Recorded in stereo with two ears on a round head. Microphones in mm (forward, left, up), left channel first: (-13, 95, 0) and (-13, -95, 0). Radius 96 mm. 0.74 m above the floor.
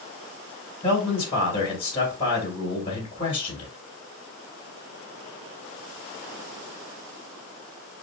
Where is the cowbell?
I don't hear a cowbell.